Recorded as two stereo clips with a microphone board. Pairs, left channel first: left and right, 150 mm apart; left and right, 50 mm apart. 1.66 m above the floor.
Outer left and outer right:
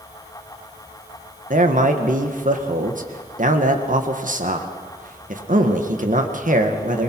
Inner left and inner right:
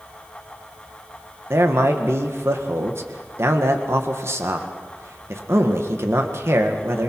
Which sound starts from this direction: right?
A man speaking, at 1.5 s.